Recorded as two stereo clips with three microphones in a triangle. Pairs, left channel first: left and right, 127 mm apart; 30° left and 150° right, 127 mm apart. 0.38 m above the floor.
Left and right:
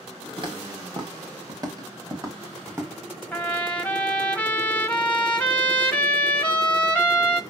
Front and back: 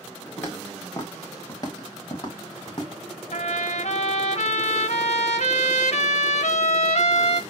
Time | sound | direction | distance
0.4 | footsteps | 45° right | 3 m
3.3 | a trumpet | 10° left | 1.1 m